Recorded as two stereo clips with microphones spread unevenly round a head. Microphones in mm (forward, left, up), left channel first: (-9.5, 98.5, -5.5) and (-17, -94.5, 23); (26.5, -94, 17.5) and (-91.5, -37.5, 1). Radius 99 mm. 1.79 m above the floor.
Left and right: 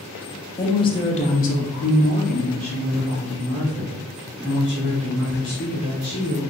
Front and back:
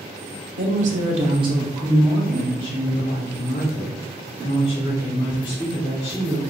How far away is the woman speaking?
About 0.9 m.